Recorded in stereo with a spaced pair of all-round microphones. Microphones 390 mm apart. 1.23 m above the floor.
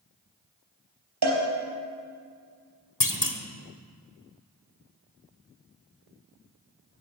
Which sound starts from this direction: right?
A cowbell, at 1.2 s.